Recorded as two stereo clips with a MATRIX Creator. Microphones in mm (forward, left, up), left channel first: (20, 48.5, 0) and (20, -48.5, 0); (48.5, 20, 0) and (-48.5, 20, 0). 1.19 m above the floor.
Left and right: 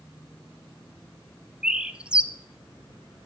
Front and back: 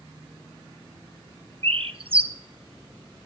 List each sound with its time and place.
1.6 s a bird: 170° right, 0.9 m